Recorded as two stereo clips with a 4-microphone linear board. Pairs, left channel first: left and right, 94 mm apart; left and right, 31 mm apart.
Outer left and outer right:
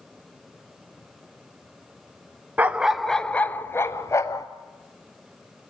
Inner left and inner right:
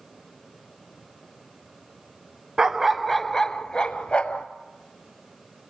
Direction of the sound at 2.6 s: 15° right (ahead or behind).